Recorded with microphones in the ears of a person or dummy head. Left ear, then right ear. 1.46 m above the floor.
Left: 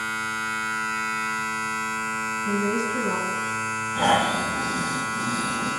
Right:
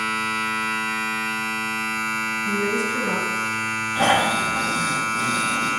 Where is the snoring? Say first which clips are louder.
Right 2 dB; 75° right (ahead or behind), 2.5 m.